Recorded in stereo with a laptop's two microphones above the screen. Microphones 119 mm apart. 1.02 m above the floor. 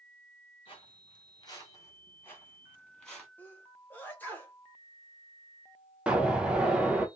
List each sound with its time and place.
0.7 s footsteps: 45° left (ahead or behind), 1.3 m; by 3.3 s centre (ahead or behind), 1.4 m
3.4 s a sneeze: 15° left (ahead or behind), 0.8 m
6.1 s an explosion: 10° right (ahead or behind), 0.7 m